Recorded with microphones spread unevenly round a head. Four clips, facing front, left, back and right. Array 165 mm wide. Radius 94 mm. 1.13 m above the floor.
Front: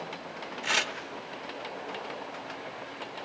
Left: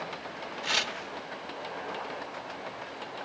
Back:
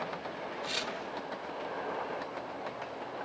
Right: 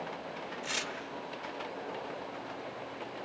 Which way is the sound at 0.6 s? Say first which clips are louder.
Left 8 dB, front 9 dB; 30° left.